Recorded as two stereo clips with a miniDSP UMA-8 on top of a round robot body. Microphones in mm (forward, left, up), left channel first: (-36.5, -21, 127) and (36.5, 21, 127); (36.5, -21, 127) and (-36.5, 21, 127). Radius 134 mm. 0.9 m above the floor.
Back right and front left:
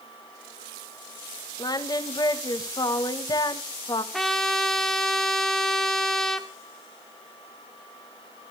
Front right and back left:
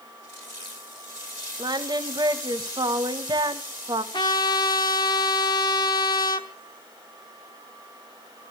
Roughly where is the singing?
Behind.